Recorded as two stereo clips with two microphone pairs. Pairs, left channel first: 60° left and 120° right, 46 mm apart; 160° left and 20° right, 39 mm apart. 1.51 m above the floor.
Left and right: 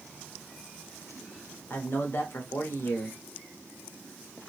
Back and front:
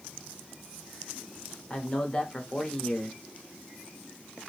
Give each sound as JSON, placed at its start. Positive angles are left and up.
{"t": 1.7, "sound": "a man speaking", "azimuth_deg": 100, "distance_m": 0.8}